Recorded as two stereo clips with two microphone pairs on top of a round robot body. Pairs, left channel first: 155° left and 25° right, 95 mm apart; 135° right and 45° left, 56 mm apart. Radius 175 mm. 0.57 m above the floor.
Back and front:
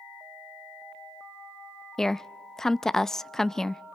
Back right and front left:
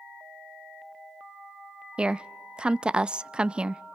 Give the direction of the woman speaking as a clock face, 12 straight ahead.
9 o'clock.